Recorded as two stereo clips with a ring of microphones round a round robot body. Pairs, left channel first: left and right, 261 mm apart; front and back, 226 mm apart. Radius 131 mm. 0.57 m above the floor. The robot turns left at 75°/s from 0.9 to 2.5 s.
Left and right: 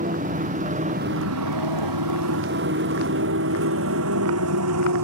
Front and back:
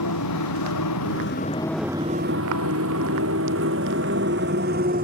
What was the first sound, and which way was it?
A motorcycle, 30° right.